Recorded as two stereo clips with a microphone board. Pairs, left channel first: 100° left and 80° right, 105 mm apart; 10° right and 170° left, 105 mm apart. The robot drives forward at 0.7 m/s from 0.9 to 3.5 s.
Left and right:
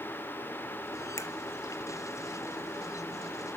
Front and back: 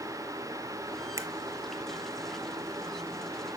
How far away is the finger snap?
About 0.8 m.